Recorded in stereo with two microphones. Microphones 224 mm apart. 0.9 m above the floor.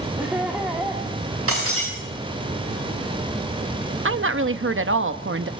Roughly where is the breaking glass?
Right.